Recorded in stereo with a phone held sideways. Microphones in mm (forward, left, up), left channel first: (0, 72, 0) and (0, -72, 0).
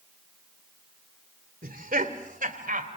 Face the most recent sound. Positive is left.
turn(degrees=-75)  # may be behind; listen again after turning